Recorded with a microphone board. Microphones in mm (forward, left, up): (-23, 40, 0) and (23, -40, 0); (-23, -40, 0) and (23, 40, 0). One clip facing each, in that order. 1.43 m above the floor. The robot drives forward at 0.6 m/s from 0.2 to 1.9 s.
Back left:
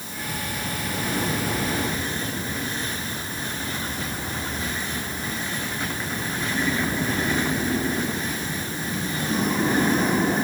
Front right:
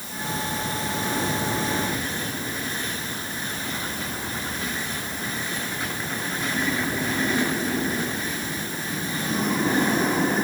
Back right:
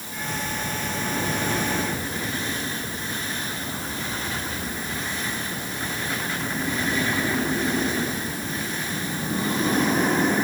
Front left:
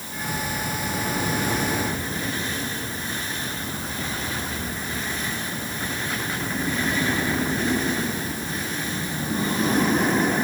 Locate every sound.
Only background noise.